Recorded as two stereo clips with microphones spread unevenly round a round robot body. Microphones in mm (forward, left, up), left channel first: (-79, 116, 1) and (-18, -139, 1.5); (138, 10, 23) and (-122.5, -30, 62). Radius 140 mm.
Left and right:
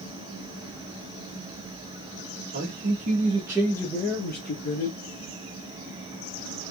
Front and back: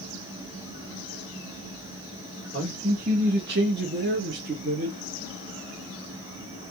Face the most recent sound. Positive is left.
turn(degrees=125)